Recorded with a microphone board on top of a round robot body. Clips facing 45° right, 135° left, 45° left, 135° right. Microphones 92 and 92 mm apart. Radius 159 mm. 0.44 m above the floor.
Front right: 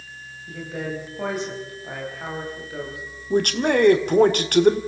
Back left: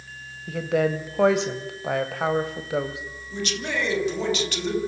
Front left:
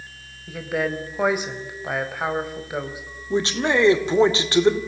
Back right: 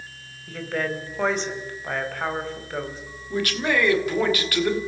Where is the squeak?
I don't hear a squeak.